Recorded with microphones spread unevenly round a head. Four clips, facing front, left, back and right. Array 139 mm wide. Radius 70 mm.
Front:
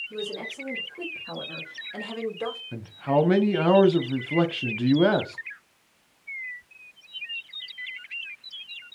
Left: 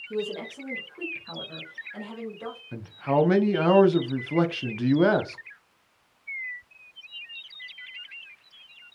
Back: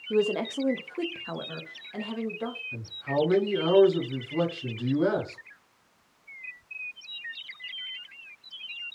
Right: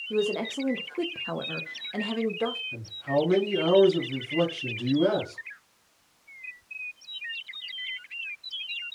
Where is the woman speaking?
165° right, 0.8 m; by 2.6 s 65° right, 1.4 m.